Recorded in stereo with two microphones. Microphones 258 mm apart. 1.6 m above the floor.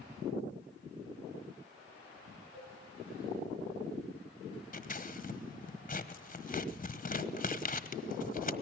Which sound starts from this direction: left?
Scissors, at 4.7 s.